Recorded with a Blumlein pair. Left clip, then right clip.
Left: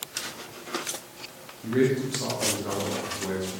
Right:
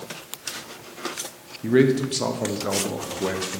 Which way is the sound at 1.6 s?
25° right.